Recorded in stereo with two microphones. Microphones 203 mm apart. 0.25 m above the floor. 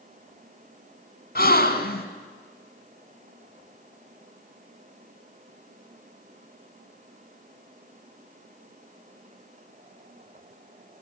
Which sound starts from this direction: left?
A gasp, at 1.4 s.